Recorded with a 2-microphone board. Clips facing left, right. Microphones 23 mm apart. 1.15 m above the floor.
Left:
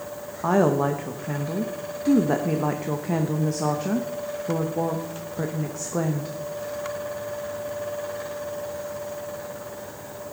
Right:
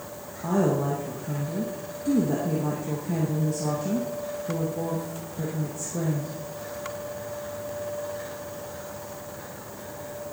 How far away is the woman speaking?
About 0.9 m.